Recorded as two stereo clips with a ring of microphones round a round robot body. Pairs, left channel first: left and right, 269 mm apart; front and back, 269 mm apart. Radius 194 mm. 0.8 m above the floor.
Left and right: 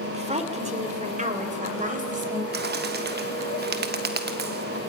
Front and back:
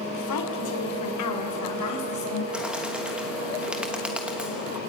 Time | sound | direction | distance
0.1 | a woman speaking | 25° right | 3 m
2.5 | a bird | 95° right | 1.2 m